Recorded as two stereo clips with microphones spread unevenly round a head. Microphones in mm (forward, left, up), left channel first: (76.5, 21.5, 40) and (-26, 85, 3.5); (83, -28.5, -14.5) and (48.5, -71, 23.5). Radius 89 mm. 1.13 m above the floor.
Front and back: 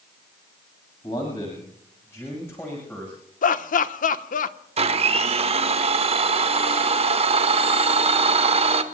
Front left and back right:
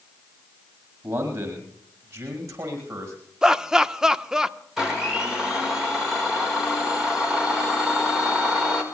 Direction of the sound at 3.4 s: 30° right.